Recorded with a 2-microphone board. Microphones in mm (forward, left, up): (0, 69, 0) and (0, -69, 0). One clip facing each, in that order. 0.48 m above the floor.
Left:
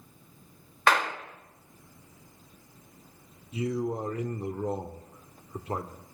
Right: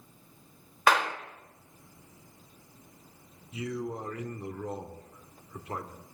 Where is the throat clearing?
No throat clearing in this recording.